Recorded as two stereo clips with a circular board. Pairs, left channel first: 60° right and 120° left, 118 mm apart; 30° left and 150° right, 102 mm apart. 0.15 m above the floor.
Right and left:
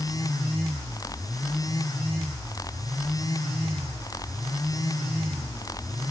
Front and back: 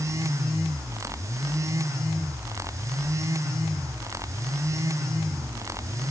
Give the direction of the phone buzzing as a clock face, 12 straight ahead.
I don't hear a phone buzzing.